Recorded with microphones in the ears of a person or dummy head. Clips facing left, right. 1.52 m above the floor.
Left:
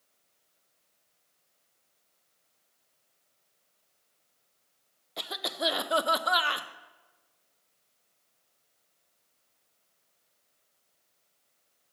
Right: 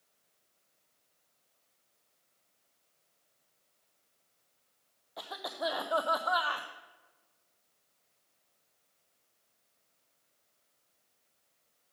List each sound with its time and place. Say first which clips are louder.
5.2 s a cough: left 3 dB; 40° left (ahead or behind), 0.5 m